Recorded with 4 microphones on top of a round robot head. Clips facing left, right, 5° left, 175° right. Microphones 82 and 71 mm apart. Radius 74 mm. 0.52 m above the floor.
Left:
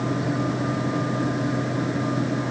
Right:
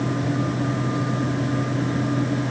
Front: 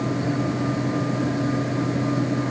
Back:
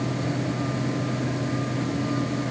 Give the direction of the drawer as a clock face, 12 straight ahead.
I don't hear a drawer.